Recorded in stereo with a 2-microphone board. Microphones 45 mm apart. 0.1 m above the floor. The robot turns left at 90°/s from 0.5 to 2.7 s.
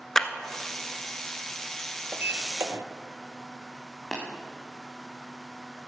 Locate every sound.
0.1 s a clap: 10° left (ahead or behind), 1.0 m
2.1 s a sliding door: 40° right, 0.8 m; by 2.8 s 90° right, 0.8 m
4.1 s tapping: 10° left (ahead or behind), 3 m